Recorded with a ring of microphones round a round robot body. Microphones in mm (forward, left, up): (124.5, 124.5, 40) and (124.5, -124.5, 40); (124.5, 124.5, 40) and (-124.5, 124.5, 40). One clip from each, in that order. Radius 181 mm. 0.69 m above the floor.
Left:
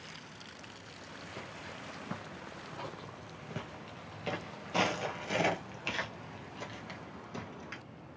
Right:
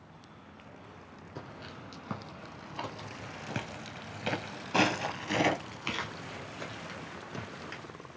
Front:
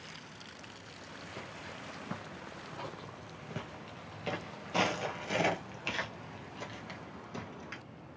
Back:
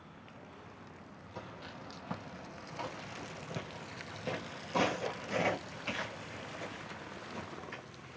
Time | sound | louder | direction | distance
1.4 | footsteps | right 2 dB, back 1 dB | 135° right | 1.6 m